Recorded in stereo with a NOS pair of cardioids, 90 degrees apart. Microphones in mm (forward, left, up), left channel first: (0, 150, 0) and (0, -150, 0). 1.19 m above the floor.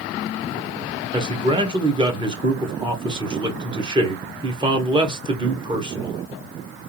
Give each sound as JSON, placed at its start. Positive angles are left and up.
{"t": 1.1, "sound": "a man speaking", "azimuth_deg": -15, "distance_m": 1.4}